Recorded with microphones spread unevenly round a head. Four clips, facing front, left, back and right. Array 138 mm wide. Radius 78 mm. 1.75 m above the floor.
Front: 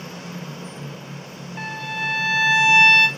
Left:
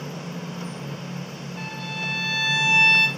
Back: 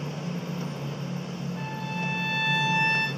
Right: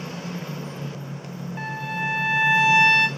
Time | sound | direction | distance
1.6 | a violin | 35° right | 1.9 m